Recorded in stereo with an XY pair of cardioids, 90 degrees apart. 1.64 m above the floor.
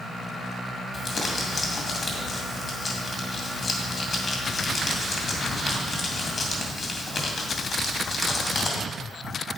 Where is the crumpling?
45° left, 2.5 m.